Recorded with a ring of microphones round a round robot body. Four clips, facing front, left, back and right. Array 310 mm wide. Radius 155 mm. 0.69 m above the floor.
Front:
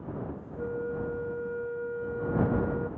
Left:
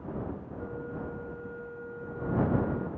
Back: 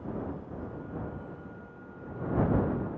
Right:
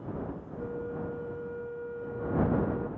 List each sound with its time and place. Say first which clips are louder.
0.6 s a flute: right 5 dB, front 7 dB; 10° right